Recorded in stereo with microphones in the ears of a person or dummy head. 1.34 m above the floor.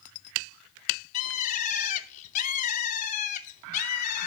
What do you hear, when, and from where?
1.1 s a bird: 40° left (ahead or behind), 0.9 m